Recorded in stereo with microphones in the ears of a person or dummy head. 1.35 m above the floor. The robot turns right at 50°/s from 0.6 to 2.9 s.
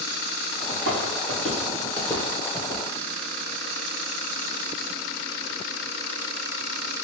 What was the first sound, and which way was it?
Footsteps, 45° right (ahead or behind).